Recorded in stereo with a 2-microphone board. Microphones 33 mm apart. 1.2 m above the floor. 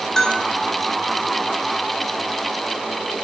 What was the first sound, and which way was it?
A bell, 10° left (ahead or behind).